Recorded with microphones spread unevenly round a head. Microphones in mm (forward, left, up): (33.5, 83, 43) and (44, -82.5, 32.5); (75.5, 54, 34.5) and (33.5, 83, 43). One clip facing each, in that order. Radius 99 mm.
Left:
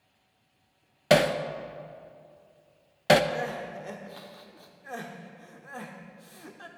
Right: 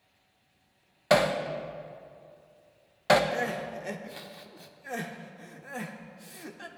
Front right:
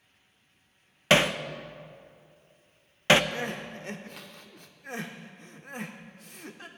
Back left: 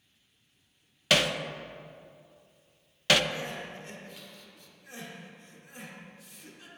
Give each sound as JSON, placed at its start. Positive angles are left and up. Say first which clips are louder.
{"t": 1.1, "sound": "hammering", "louder": "left 2 dB, front right 3 dB", "azimuth_deg": 30, "distance_m": 0.7}
{"t": 3.3, "sound": "crying", "louder": "right 1 dB, front right 3 dB", "azimuth_deg": -20, "distance_m": 0.8}